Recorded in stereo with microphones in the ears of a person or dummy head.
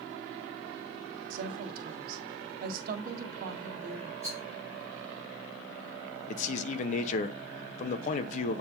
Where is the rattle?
40° left (ahead or behind), 3 m.